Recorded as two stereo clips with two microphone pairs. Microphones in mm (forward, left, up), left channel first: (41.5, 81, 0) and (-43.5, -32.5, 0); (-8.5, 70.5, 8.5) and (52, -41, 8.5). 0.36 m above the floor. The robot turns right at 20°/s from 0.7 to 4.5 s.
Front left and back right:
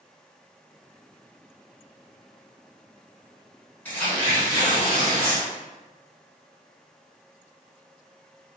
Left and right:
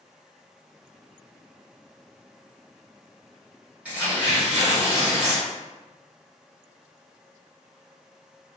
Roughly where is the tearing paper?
Ahead.